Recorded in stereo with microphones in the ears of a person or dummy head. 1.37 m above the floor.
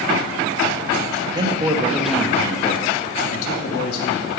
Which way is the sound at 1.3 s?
30° right (ahead or behind).